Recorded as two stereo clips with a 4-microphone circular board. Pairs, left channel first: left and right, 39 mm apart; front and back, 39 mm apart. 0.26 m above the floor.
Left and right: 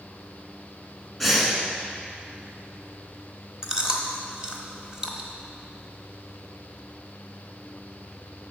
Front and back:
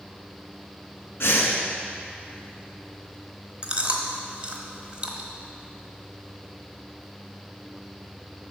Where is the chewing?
140° right, 1.2 m.